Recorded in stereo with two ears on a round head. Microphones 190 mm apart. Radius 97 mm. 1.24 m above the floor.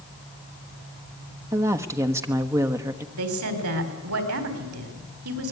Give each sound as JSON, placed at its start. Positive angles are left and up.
{"t": 1.5, "sound": "a woman speaking", "side_deg": -15, "distance_m": 1.3}
{"t": 3.1, "sound": "a woman speaking", "side_deg": -85, "distance_m": 4.0}